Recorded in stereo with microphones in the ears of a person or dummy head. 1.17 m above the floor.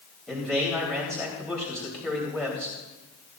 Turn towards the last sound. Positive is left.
turn(degrees=5)  # may be behind; listen again after turning